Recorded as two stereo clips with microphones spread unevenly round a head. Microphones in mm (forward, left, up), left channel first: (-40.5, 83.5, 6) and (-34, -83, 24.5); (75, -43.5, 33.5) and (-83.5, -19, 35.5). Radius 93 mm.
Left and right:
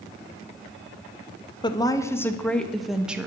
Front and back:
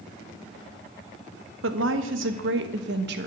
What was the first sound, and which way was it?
A woman speaking, 160° left.